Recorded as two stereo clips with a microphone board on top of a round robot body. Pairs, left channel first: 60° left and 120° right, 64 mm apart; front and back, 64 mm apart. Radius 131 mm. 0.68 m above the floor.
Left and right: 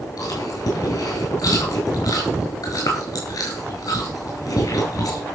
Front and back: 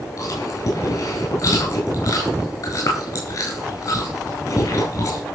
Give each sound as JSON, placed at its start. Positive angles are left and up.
{"t": 0.2, "sound": "chewing", "azimuth_deg": 35, "distance_m": 9.5}